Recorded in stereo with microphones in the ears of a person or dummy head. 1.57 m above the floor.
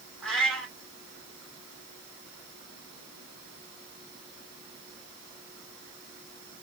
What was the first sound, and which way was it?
A cat meowing, 5° left (ahead or behind).